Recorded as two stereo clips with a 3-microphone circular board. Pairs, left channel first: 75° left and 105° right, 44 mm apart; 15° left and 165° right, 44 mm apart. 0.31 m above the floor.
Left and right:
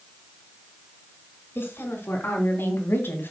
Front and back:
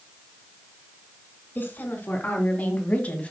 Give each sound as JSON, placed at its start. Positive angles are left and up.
{"t": 1.6, "sound": "a woman speaking", "azimuth_deg": 50, "distance_m": 3.5}